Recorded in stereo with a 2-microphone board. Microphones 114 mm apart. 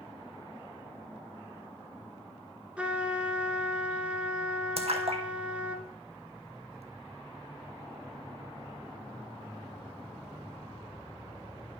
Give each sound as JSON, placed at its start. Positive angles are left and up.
{"t": 2.8, "sound": "a trumpet", "side_deg": -10, "distance_m": 0.9}
{"t": 4.8, "sound": "a splash", "side_deg": -65, "distance_m": 1.1}